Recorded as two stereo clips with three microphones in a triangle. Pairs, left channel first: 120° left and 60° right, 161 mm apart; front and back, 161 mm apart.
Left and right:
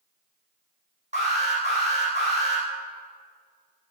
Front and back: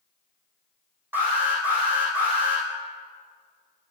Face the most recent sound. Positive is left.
turn(degrees=-100)